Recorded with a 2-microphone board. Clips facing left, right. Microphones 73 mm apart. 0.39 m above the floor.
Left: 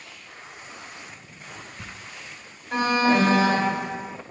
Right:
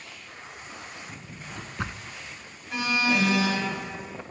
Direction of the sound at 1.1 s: 75° right (ahead or behind).